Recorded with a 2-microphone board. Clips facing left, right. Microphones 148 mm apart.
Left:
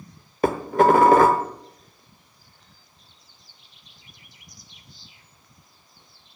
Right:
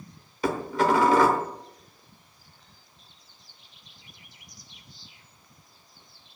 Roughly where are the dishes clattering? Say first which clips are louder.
Left 6 dB; left.